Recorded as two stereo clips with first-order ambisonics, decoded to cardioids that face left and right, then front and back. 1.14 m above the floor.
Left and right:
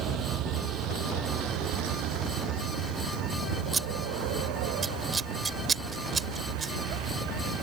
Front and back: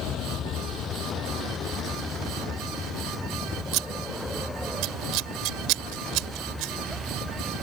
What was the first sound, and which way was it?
A vehicle, 50° right.